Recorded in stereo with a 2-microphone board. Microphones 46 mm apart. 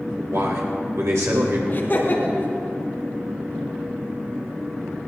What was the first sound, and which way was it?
A man speaking, 75° right (ahead or behind).